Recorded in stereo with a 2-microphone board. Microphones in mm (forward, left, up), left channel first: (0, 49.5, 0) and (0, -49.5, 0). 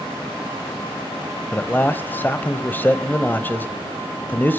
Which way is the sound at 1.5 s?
20° left (ahead or behind).